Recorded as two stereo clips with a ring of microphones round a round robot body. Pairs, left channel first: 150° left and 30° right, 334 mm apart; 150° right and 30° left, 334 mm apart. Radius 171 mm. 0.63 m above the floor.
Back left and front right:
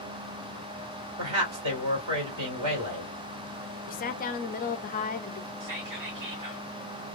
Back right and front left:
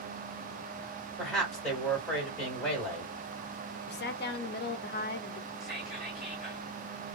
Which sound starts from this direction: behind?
A woman speaking, at 3.9 s.